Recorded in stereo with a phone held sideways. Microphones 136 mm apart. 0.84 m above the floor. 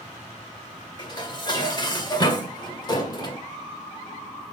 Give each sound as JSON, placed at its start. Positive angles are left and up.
{"t": 1.0, "sound": "dishes clattering", "side_deg": 35, "distance_m": 1.8}